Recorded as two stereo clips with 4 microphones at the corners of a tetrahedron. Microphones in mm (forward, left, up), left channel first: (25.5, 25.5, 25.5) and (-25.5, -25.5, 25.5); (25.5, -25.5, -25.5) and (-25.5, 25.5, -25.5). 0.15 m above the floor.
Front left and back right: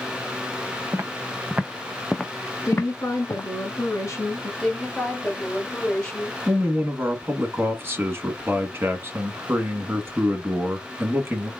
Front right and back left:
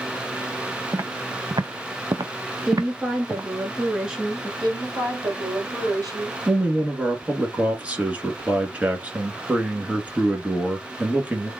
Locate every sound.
0.9 s footsteps: 175° left, 1.0 m; by 3.4 s 80° left, 0.9 m
2.6 s a woman speaking: 60° left, 2.0 m
4.6 s a woman speaking: 120° left, 3 m
6.5 s a man speaking: 165° right, 1.4 m